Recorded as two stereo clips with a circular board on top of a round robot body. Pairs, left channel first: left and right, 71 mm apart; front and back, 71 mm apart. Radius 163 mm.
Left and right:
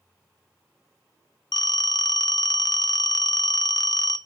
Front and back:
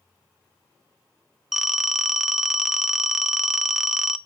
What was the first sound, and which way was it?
A phone ringing, 95° left.